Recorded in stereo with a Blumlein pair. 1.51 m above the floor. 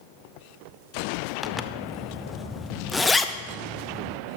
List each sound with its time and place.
1.4 s a zipper: 10° left, 0.6 m